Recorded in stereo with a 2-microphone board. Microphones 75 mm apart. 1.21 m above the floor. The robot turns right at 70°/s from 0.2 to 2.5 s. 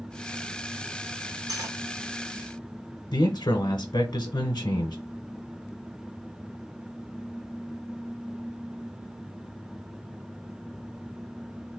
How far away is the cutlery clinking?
About 2 m.